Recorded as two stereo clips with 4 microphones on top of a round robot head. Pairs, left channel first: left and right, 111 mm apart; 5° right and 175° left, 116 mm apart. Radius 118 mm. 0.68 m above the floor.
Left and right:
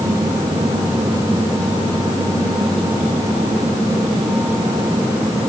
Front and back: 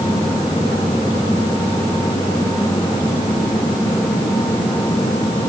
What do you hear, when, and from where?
Only background noise.